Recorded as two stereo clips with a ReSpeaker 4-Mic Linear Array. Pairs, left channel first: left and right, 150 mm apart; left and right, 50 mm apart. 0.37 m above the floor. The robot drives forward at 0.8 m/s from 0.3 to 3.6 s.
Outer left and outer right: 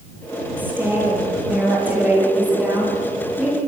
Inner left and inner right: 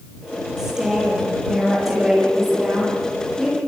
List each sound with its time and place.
0.6 s a woman speaking: 10° right (ahead or behind), 7.5 m